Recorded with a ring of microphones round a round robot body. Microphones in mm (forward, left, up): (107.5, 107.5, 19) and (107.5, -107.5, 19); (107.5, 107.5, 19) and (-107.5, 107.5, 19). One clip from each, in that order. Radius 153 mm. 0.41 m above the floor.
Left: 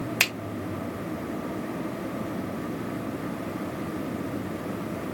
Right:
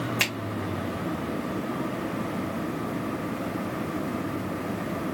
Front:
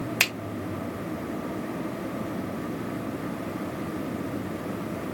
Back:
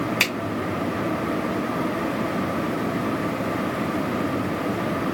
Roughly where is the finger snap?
Ahead left.